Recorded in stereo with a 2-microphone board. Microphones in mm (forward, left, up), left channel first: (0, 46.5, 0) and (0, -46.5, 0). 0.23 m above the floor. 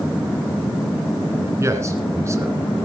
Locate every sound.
1.6 s a man speaking: 35° right (ahead or behind), 2.5 m